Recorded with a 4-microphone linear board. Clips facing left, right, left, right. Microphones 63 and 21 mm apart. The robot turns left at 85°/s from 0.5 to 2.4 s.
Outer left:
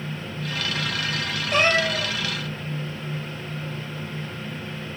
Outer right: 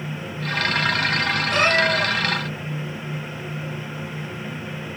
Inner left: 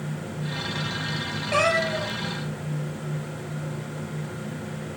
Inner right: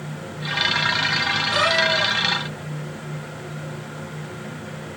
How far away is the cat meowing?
About 5 m.